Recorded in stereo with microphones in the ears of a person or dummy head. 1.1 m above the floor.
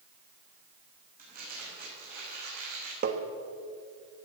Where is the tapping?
50° right (ahead or behind), 1.3 m.